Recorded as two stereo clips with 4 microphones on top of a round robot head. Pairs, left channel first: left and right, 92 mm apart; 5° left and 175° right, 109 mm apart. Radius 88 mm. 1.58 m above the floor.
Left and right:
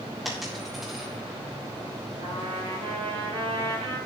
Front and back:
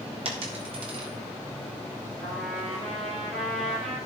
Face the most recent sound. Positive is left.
turn(degrees=-85)